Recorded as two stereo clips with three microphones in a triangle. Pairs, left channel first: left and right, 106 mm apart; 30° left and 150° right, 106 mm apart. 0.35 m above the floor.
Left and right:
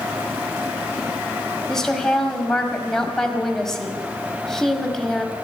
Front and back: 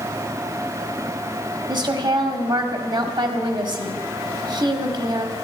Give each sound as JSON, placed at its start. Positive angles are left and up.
{"t": 1.7, "sound": "a woman speaking", "azimuth_deg": 175, "distance_m": 1.8}